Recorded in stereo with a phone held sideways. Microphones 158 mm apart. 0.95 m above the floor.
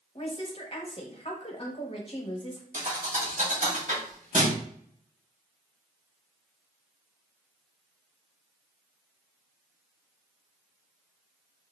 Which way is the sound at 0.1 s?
35° left (ahead or behind).